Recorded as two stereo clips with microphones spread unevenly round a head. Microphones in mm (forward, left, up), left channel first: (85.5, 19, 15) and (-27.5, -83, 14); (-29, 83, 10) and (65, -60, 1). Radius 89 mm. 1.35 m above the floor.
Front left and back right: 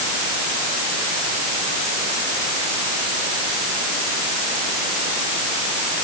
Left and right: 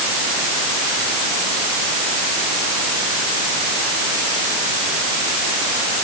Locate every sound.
Only background noise.